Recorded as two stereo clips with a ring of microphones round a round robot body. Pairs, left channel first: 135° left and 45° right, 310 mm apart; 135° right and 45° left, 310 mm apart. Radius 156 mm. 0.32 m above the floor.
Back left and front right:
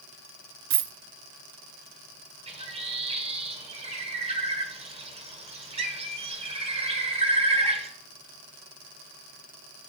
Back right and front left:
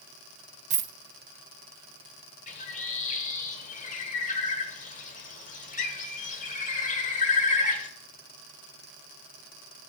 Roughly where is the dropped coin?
Ahead.